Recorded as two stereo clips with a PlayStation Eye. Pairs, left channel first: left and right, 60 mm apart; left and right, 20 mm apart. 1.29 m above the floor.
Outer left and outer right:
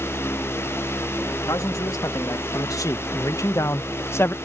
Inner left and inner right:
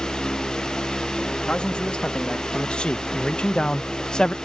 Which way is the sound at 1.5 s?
70° left (ahead or behind).